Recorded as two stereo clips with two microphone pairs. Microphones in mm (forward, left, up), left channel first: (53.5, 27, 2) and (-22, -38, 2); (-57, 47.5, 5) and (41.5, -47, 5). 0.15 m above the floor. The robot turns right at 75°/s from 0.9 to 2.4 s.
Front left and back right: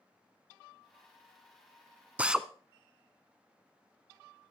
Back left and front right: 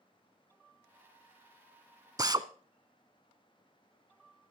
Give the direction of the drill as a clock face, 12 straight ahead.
3 o'clock.